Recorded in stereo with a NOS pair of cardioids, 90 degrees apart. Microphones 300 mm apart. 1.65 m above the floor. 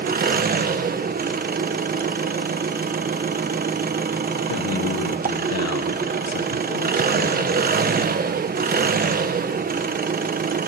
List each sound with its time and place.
0.0 s an engine running: 30° right, 1.3 m
4.5 s a man speaking: 55° left, 1.5 m